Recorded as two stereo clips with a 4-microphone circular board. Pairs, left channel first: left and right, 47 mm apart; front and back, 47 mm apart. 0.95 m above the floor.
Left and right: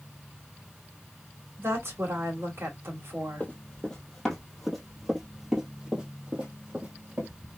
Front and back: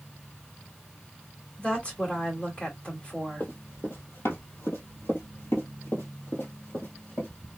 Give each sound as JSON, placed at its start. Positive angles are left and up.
{"t": 1.6, "sound": "a woman speaking", "azimuth_deg": -65, "distance_m": 2.0}
{"t": 3.4, "sound": "running footsteps", "azimuth_deg": 25, "distance_m": 1.7}